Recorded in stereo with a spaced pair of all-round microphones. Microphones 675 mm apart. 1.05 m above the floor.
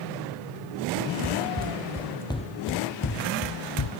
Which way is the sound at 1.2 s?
20° right (ahead or behind).